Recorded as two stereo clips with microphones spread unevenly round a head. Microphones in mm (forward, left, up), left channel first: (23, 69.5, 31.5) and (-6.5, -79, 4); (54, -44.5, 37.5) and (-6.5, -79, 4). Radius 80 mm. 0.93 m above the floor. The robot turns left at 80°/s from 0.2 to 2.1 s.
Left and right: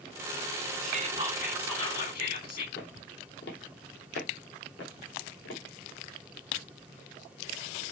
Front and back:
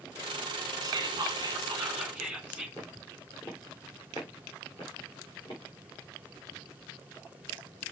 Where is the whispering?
140° right, 2.5 m; by 2.7 s 120° left, 2.5 m.